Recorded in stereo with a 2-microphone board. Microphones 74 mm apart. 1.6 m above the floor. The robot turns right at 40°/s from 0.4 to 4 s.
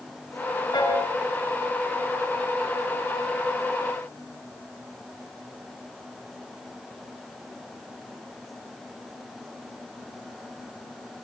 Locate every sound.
0.7 s a piano: 75° left (ahead or behind), 8.5 m; by 1.0 s 85° left, 8.5 m